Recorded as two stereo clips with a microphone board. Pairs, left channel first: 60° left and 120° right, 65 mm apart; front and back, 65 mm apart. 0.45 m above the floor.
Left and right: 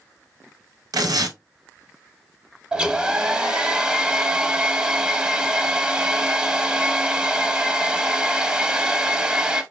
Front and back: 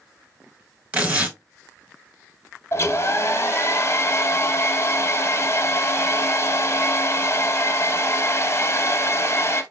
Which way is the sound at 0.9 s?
115° right.